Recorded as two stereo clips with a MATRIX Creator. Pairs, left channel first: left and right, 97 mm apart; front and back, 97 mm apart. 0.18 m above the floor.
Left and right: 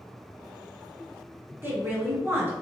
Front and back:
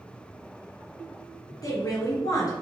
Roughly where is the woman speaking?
Ahead right.